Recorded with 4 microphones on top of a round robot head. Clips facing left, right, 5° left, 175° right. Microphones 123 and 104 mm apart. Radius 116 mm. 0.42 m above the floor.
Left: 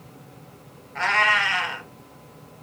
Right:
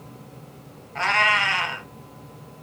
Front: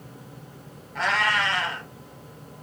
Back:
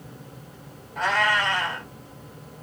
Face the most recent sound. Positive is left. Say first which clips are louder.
# even, back 1 dB
turn(degrees=-20)